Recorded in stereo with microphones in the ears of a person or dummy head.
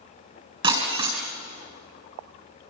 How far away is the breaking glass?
About 4.5 m.